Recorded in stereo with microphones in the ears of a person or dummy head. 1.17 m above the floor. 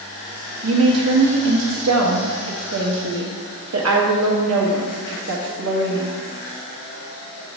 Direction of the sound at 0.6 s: 85° right.